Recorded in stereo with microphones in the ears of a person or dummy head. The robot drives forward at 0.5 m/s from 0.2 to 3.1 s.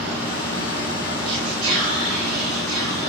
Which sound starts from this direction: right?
Whispering, at 1.2 s.